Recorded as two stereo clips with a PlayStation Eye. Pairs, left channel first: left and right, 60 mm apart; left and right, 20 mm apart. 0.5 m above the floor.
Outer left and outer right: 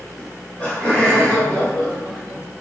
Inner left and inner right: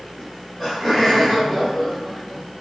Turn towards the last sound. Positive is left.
turn(degrees=25)  # may be behind; listen again after turning